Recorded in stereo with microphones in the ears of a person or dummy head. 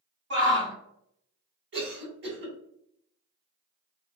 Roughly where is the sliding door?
No sliding door in this recording.